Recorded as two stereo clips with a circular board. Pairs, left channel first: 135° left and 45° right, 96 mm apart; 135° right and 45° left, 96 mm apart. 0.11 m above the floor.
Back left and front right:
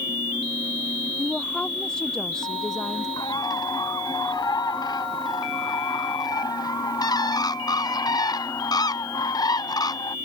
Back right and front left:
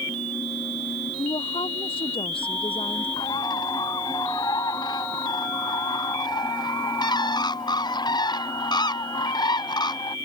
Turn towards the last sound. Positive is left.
turn(degrees=180)